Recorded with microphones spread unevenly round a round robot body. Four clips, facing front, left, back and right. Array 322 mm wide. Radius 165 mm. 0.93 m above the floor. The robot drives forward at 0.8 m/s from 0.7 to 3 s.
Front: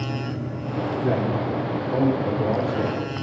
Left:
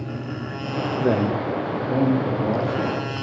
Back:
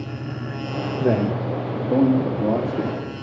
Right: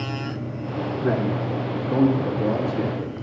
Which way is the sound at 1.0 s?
140° left.